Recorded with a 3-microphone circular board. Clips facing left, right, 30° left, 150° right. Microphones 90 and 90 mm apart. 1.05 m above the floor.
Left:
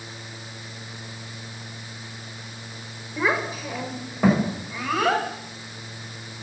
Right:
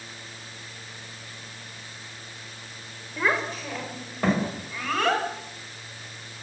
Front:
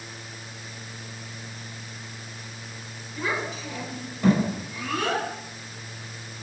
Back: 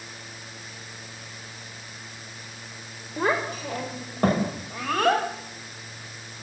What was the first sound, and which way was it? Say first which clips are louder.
A child speaking: left 2 dB, back 5 dB; 175° left.